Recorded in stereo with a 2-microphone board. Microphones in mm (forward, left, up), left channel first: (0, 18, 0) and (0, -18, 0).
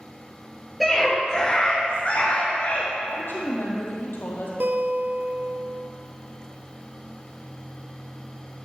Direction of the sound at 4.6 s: 70° right (ahead or behind).